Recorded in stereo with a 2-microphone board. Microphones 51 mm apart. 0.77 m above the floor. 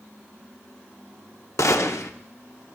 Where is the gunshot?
75° left (ahead or behind), 0.8 m.